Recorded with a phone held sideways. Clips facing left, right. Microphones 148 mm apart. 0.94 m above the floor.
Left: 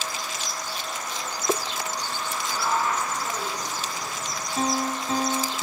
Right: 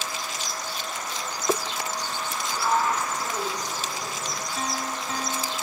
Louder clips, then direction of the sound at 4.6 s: Left 7 dB; 35° left (ahead or behind).